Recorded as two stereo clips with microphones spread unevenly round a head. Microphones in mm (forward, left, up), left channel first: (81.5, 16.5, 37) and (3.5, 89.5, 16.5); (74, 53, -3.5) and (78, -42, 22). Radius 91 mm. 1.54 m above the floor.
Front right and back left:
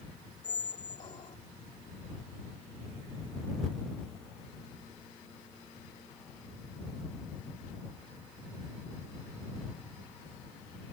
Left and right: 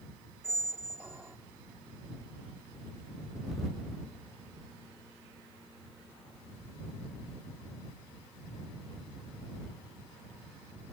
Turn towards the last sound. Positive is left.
turn(degrees=-35)